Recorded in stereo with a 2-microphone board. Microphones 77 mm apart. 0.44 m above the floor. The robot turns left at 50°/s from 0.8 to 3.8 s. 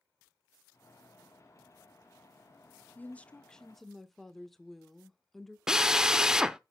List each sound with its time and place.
3.0 s a woman speaking: 20° left (ahead or behind), 0.8 m; by 5.6 s 5° left (ahead or behind), 0.8 m
5.7 s a drill: 10° right (ahead or behind), 0.6 m